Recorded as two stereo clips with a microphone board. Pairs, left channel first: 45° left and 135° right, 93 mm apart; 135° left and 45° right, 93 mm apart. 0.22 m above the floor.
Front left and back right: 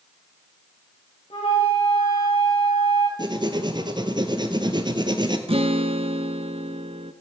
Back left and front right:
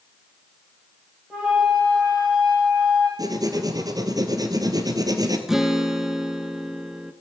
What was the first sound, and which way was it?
A flute, 35° left.